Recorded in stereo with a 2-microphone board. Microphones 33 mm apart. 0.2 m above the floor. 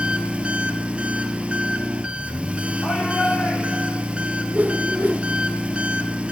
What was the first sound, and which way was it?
An engine running, 35° right (ahead or behind).